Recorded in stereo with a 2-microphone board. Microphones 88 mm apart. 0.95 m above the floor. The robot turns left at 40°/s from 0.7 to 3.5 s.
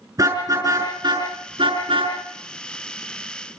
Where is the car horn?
40° right (ahead or behind), 6 m; by 2.1 s 80° right, 6 m.